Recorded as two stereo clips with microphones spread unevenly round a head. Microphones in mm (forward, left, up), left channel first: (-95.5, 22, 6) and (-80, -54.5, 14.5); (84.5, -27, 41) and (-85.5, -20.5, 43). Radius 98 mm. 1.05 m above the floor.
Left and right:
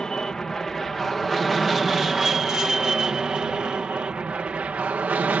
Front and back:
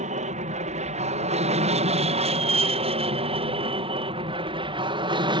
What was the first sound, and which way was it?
An aircraft, 175° left.